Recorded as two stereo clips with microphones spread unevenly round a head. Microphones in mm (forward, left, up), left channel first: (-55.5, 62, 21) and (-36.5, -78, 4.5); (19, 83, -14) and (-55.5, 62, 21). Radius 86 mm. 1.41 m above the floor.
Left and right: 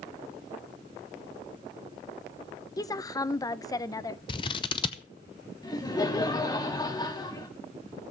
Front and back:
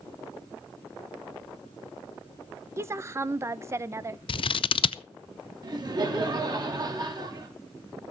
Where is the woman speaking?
160° left, 0.7 m.